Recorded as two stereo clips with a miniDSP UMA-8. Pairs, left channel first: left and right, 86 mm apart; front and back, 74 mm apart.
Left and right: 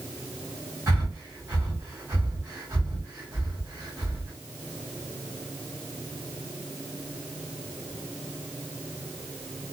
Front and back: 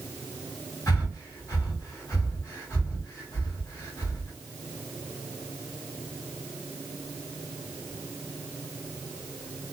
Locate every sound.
0.9 s breathing: 50° right, 1.6 m